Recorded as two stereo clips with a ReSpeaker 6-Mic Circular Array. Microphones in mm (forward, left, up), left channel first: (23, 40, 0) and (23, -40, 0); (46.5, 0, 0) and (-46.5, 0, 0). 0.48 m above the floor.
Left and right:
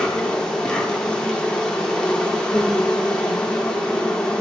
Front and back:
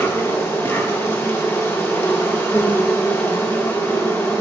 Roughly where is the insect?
Ahead.